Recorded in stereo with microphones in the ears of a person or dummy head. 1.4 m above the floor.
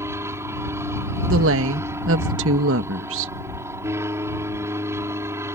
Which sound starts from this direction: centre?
An aircraft, at 0.0 s.